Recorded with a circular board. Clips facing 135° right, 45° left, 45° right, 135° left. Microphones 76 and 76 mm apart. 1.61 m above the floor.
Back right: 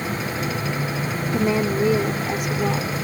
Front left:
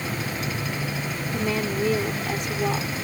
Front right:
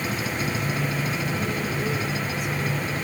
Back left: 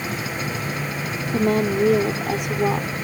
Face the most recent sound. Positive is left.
turn(degrees=135)